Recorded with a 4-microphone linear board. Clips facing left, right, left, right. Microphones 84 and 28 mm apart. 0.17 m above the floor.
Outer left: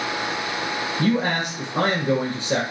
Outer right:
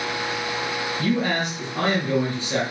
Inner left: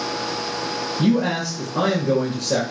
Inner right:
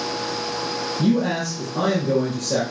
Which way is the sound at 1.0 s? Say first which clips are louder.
Outer left 2 dB, inner left 1 dB; 50° left (ahead or behind).